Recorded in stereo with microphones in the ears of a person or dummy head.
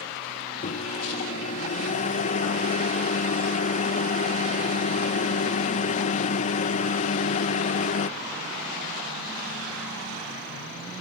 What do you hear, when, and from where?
0.6 s a microwave: 45° left (ahead or behind)